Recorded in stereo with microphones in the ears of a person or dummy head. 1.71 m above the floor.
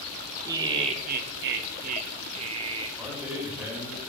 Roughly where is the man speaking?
Centre.